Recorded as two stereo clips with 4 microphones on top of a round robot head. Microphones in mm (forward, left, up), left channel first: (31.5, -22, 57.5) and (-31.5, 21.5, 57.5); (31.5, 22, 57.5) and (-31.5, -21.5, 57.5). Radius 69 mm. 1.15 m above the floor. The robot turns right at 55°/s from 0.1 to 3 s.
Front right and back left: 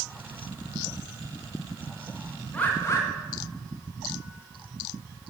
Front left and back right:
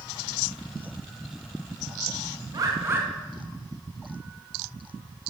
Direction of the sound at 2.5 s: 110° right.